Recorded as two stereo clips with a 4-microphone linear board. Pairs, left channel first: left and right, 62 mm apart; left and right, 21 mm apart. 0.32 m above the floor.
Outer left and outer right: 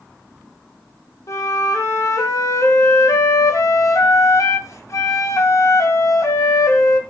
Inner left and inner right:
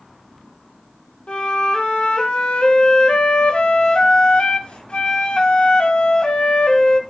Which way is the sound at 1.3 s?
55° left (ahead or behind).